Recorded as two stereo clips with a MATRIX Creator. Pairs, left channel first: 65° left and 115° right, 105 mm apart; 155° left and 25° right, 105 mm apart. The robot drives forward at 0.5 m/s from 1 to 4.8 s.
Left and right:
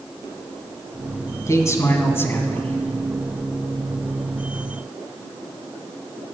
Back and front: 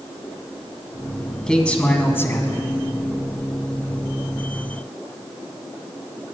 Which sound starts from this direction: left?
A man speaking, at 1.5 s.